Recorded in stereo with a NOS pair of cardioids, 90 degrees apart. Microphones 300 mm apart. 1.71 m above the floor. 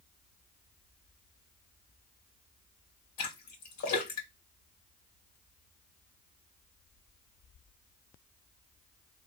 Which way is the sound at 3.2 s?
70° left.